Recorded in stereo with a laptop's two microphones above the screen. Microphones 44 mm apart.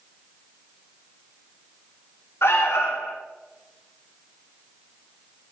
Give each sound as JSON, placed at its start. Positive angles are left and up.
{"t": 2.4, "sound": "an alarm", "side_deg": 70, "distance_m": 3.5}